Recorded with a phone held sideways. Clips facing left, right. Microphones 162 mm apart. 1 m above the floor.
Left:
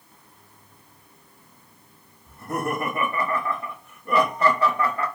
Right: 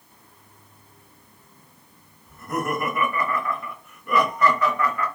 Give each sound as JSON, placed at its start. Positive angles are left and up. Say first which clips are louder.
{"t": 2.3, "sound": "laughter", "louder": "even", "side_deg": 30, "distance_m": 0.9}